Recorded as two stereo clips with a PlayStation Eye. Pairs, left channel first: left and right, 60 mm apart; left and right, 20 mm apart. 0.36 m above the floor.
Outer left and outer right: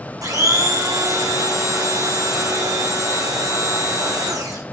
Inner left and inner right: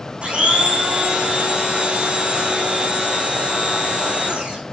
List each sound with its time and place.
0.2 s a blender: 80° right, 5.5 m